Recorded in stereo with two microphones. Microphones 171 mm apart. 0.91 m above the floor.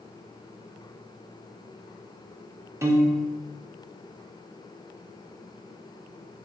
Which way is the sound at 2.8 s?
15° right (ahead or behind).